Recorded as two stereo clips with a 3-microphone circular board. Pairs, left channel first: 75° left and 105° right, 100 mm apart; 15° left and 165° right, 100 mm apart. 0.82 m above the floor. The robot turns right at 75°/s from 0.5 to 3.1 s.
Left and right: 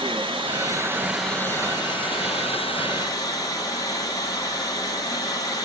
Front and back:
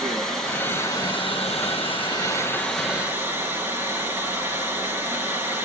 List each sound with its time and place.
0.0 s running water: 70° right, 1.8 m; by 5.7 s 125° left, 1.8 m